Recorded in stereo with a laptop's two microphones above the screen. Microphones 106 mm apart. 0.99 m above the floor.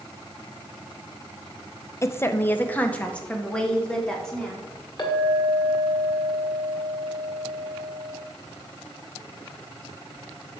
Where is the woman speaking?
25° left (ahead or behind), 0.6 m; by 4.6 s 5° left (ahead or behind), 2.5 m.